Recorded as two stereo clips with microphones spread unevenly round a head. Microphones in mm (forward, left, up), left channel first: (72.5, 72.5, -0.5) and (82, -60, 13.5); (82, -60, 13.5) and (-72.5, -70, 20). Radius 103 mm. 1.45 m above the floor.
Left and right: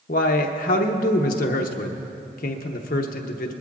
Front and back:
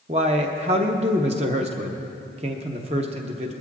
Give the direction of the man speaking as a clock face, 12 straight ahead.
8 o'clock.